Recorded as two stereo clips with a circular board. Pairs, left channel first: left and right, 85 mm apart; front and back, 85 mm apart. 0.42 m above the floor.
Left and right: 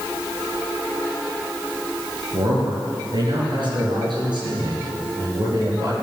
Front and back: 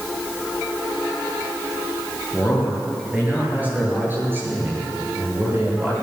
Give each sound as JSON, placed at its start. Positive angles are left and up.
{"t": 2.3, "sound": "a man speaking", "azimuth_deg": -100, "distance_m": 8.0}